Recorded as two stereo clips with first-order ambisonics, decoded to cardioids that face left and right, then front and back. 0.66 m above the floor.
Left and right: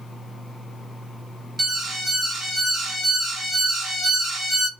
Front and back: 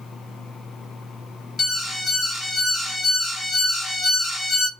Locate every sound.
1.6 s an alarm: 45° right, 0.7 m